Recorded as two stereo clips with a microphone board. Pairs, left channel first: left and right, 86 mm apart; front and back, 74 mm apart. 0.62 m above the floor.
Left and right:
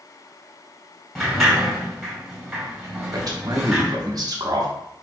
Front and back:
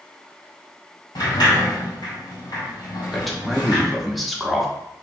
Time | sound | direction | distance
1.1 | a sliding door | straight ahead | 1.6 m
3.1 | a man speaking | 90° right | 0.9 m